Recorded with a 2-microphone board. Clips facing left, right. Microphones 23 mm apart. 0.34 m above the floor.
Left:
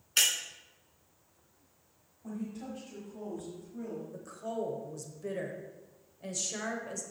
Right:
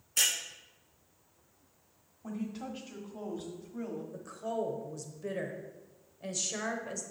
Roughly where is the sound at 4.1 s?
Centre.